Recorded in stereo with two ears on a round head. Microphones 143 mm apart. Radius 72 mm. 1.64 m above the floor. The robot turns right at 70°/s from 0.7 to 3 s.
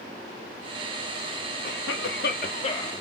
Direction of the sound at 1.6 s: 65° left.